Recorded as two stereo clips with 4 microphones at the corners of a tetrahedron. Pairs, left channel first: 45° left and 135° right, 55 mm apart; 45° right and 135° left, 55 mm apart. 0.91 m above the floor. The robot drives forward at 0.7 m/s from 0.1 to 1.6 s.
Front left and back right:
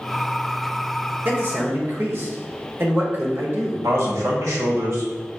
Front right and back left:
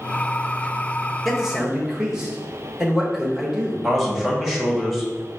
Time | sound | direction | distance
1.2 | a man speaking | 140° right | 1.0 m
3.8 | a man speaking | 135° right | 1.4 m